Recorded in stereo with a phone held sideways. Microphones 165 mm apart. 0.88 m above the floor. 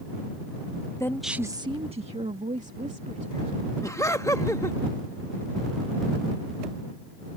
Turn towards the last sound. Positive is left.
turn(degrees=20)  # may be behind; listen again after turning